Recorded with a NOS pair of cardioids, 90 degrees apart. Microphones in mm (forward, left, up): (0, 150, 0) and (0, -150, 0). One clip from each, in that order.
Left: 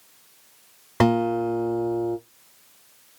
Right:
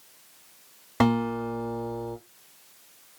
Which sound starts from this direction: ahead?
A guitar, at 1.0 s.